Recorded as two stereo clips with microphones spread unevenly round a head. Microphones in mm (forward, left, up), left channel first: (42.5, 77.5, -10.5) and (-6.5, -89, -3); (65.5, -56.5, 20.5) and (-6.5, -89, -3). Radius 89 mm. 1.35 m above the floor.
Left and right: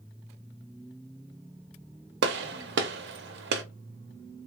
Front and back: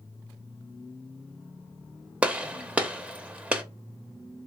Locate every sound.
2.2 s a gunshot: 95° right, 0.6 m